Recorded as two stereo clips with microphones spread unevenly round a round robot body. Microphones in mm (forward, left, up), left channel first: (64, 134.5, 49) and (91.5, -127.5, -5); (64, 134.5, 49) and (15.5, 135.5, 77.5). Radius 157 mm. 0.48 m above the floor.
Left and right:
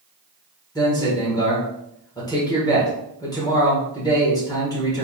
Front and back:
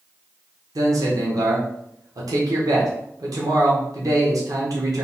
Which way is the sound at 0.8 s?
Straight behind.